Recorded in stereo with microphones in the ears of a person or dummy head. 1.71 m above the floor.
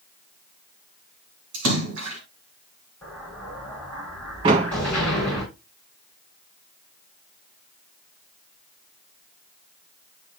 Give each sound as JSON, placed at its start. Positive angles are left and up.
{"t": 1.5, "sound": "a splash", "side_deg": -65, "distance_m": 2.5}
{"t": 3.0, "sound": "an explosion", "side_deg": 15, "distance_m": 6.0}
{"t": 4.4, "sound": "a door slam", "side_deg": -15, "distance_m": 0.6}